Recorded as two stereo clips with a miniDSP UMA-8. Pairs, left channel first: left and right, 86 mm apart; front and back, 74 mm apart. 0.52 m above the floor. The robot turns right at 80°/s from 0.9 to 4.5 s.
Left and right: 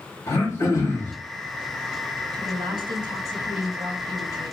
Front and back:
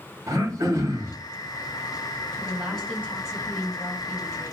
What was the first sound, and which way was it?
Throat clearing, 140° left.